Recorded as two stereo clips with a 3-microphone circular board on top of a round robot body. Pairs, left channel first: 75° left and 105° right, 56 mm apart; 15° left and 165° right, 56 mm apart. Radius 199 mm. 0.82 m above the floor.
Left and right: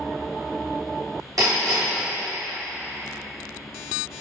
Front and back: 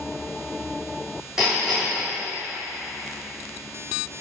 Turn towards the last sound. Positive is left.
turn(degrees=-80)